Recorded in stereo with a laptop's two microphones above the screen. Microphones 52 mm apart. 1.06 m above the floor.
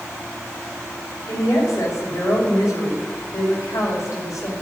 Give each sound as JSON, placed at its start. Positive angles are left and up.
{"t": 1.3, "sound": "a woman speaking", "side_deg": 80, "distance_m": 5.0}